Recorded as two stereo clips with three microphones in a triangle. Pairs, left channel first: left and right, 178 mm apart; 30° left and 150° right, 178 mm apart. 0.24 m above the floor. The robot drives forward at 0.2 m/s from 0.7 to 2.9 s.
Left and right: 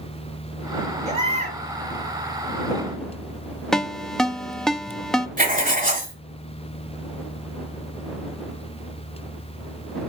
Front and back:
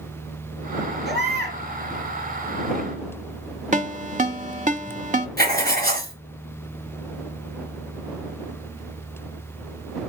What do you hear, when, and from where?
1.1 s a baby crying: 140° right, 3.5 m
3.7 s a ringtone: 175° left, 0.6 m
5.4 s writing: 125° right, 3 m